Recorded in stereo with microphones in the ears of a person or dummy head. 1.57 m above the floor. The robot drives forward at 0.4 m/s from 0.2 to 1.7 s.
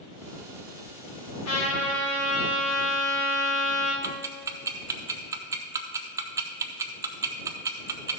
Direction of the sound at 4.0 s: 25° right (ahead or behind).